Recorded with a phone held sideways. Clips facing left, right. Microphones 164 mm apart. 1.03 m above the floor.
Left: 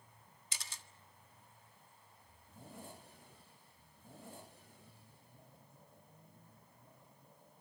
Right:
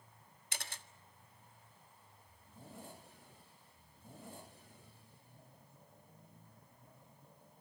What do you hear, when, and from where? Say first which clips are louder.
0.5 s a camera shutter: right 5 dB; 60° right (ahead or behind), 1.4 m